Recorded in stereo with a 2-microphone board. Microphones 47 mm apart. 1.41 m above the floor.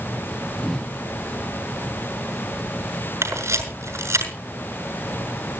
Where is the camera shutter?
80° right, 6 m.